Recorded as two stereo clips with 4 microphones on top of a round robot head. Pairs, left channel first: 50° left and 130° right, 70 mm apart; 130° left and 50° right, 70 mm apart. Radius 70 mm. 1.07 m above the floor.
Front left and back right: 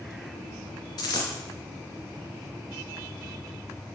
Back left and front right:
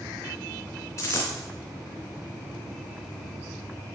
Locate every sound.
1.0 s a dropped coin: 80° left, 2.5 m